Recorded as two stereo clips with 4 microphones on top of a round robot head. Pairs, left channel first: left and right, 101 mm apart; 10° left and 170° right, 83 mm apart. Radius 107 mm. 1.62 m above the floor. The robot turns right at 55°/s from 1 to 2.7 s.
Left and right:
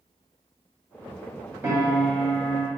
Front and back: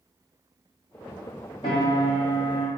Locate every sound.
1.6 s a piano: 20° right, 1.9 m; by 2.7 s 35° left, 1.9 m